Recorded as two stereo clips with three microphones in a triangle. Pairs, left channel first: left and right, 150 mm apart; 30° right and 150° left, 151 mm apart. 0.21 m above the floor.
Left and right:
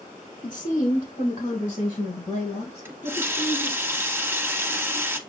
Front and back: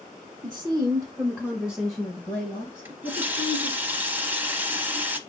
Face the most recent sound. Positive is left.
turn(degrees=-145)